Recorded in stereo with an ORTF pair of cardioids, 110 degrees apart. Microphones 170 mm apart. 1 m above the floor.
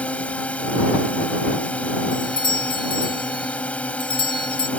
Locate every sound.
0.0 s a drone: 5° left
2.1 s a doorbell: 30° left